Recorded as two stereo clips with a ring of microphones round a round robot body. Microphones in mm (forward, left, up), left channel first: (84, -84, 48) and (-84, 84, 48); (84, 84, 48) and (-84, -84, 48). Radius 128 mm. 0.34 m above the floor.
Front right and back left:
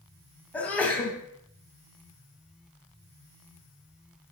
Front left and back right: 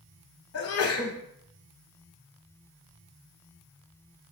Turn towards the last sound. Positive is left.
turn(degrees=40)